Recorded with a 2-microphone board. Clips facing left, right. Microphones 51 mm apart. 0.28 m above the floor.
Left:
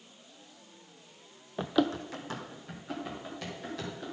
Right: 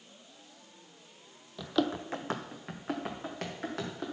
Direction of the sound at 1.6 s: 35° left (ahead or behind).